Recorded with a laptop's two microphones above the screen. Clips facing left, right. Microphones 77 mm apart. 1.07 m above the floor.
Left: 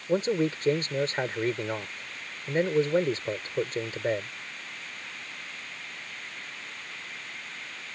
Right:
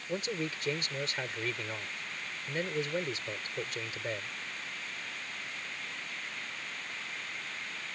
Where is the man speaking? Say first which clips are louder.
Left 10 dB; 35° left (ahead or behind).